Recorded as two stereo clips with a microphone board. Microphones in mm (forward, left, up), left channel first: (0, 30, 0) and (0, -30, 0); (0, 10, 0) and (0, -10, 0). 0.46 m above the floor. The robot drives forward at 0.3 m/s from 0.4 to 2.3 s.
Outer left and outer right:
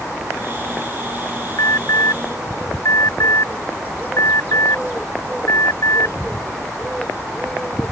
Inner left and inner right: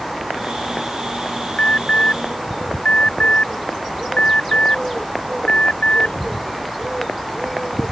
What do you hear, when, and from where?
1.6 s an alarm: 70° left (ahead or behind)